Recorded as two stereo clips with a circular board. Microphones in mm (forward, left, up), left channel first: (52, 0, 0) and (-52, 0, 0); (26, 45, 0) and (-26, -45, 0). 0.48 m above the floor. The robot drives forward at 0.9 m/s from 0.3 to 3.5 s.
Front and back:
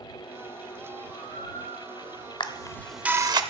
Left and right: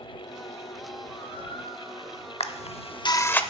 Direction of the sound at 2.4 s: 40° left.